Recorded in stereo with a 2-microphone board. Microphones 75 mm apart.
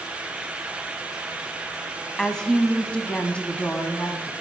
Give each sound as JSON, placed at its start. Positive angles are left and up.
{"t": 2.2, "sound": "a woman speaking", "side_deg": 5, "distance_m": 1.0}